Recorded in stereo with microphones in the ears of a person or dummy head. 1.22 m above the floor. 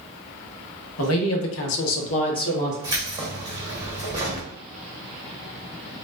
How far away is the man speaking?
About 1.2 m.